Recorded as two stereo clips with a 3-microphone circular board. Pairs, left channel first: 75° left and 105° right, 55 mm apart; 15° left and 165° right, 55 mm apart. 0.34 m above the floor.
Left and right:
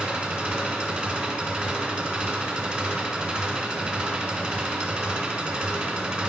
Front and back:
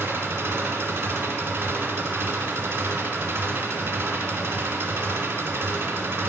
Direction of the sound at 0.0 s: 175° right.